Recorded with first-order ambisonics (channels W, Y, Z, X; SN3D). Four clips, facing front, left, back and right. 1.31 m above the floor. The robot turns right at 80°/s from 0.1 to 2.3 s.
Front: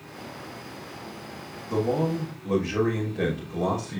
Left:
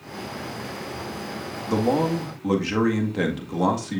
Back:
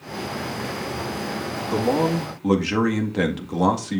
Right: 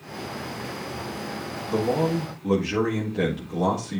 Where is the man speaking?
105° left, 2 m; by 4.0 s 155° left, 2 m.